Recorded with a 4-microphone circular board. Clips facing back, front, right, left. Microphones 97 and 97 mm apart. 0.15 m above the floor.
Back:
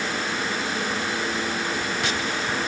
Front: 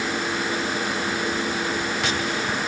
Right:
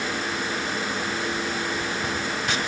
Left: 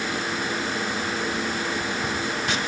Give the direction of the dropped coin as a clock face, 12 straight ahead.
I don't hear a dropped coin.